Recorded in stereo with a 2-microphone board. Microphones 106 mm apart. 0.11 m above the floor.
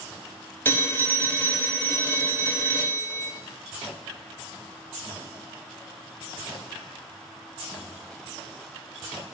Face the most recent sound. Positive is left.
turn(degrees=20)  # may be behind; listen again after turning